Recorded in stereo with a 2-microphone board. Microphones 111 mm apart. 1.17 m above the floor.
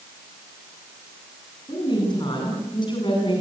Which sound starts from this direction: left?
A woman speaking, at 1.7 s.